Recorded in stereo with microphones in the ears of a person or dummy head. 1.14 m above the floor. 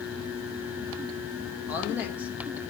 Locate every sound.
1.7 s a woman speaking: 10° right (ahead or behind), 0.9 m